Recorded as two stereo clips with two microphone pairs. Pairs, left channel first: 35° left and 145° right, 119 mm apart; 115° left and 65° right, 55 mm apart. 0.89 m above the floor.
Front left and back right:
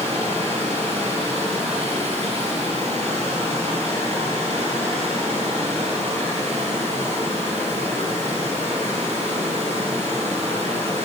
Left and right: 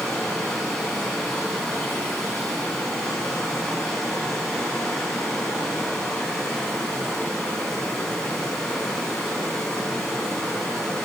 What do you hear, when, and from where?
0.0 s running water: 170° right, 4 m